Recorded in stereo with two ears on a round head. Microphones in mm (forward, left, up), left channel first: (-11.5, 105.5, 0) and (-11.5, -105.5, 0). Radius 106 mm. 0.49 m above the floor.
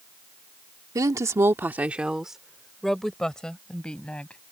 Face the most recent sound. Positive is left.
turn(degrees=5)  # may be behind; listen again after turning